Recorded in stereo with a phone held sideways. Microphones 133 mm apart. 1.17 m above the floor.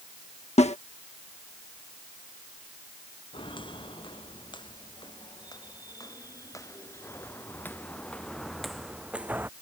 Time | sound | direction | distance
0.6 | a snare drum | 50° left (ahead or behind) | ?
3.3 | footsteps | 35° left (ahead or behind) | ?